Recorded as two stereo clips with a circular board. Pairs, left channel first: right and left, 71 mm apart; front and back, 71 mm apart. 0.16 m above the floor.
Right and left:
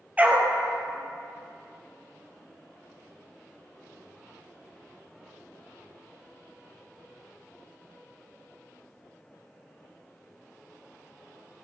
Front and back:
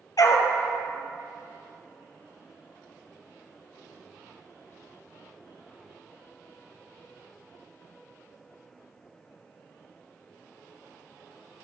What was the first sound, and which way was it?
A dog barking, 25° left.